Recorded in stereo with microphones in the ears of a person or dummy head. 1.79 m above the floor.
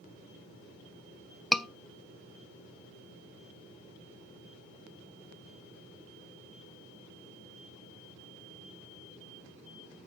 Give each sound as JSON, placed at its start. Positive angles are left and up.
{"t": 1.5, "sound": "a scream", "side_deg": 5, "distance_m": 0.7}